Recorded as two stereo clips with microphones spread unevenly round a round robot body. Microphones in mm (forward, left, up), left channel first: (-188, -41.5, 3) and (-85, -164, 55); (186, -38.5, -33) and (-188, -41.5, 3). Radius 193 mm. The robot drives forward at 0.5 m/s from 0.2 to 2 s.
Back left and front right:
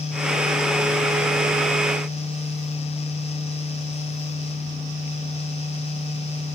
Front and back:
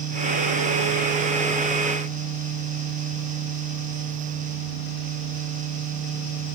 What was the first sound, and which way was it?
Only background noise.